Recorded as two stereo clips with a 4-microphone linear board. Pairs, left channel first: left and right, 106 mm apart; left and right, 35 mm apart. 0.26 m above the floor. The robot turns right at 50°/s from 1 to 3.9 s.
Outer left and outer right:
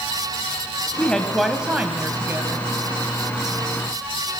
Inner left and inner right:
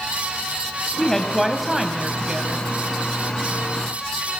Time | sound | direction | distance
1.0 | a woman speaking | 160° left | 1.7 m